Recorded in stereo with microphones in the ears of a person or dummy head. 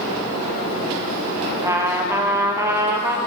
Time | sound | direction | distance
1.6 | a trumpet | 15° right (ahead or behind) | 0.9 m